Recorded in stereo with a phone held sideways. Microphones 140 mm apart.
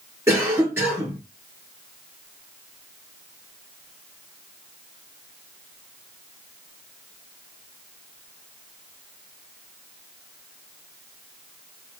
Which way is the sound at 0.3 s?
20° right (ahead or behind).